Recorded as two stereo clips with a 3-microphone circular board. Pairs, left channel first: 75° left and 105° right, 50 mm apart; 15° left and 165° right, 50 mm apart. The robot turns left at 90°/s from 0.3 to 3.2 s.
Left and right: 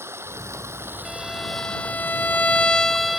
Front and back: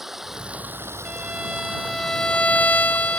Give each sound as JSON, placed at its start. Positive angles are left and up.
{"t": 0.0, "sound": "running water", "azimuth_deg": -85}
{"t": 1.1, "sound": "a violin", "azimuth_deg": 175}